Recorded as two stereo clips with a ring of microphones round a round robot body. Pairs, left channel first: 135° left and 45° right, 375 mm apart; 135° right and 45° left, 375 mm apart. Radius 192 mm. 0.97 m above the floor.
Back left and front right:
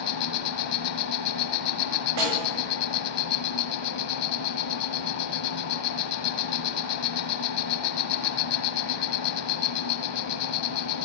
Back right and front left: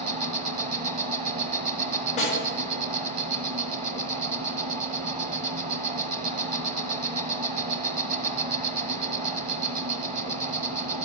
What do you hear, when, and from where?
0.0 s an insect: 105° left, 1.0 m
2.2 s a snare drum: 60° right, 6.5 m